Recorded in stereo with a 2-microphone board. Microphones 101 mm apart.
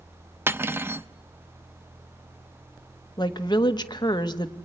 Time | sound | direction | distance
0.5 | cutlery clinking | 20° right (ahead or behind) | 0.5 m
3.2 | a woman speaking | 40° left (ahead or behind) | 1.2 m